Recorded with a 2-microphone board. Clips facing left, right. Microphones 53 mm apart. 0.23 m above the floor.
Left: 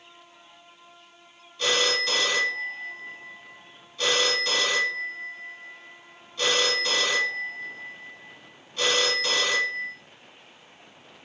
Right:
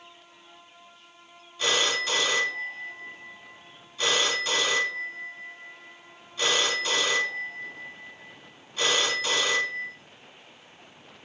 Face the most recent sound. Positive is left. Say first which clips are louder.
# left 1 dB
turn(degrees=-10)  # may be behind; listen again after turning